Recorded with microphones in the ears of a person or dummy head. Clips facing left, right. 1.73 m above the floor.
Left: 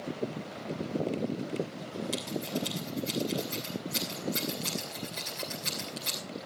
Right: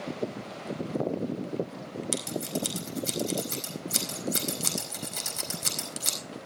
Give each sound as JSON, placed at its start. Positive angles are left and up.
{"t": 2.1, "sound": "scissors", "side_deg": -65, "distance_m": 5.0}